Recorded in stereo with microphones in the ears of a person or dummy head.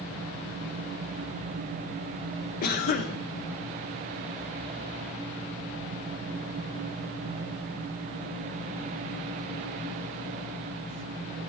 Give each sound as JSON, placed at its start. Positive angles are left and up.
{"t": 2.6, "sound": "a cough", "side_deg": 50, "distance_m": 0.7}